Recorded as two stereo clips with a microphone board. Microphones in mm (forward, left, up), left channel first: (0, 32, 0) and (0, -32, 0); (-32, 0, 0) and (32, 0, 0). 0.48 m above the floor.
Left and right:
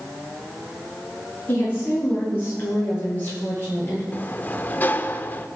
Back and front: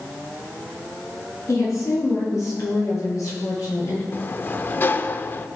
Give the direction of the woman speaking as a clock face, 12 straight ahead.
7 o'clock.